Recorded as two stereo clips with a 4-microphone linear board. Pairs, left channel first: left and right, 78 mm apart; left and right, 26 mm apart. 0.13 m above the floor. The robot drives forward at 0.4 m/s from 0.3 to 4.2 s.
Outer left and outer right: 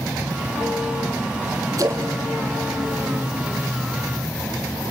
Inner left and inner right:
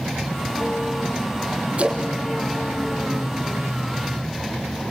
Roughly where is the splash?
Right.